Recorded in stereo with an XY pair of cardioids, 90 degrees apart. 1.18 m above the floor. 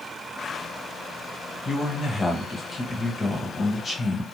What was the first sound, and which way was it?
A man speaking, 35° left.